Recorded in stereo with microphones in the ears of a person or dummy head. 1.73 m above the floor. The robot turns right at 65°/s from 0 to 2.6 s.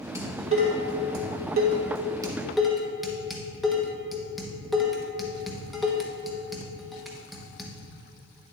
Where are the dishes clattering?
15° right (ahead or behind), 1.3 m; by 7.7 s centre (ahead or behind), 1.3 m.